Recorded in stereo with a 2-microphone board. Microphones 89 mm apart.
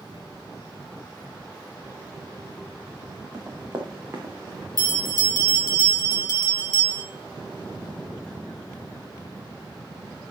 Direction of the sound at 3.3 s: 30° right (ahead or behind).